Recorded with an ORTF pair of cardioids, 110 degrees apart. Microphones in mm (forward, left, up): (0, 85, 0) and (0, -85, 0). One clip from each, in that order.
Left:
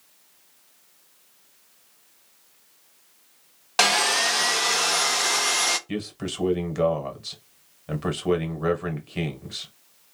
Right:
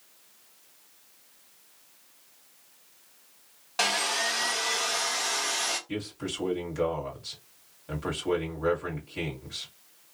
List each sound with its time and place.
3.8 s sawing: 45° left, 0.6 m
5.9 s a man speaking: 40° left, 1.5 m